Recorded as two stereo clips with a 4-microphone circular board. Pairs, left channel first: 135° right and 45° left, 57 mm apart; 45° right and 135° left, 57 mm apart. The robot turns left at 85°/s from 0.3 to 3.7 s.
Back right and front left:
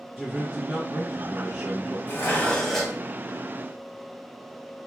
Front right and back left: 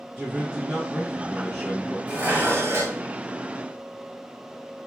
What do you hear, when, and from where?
0.2 s a man speaking: 105° left, 0.9 m; by 2.0 s 35° right, 0.9 m
2.1 s dishes clattering: 160° right, 0.8 m; by 3.0 s 120° left, 0.8 m